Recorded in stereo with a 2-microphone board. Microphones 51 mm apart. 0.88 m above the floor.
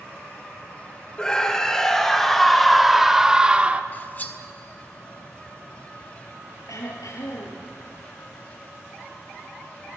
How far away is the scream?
About 3.5 m.